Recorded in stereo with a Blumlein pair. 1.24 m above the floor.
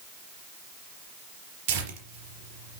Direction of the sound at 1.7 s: 45° right.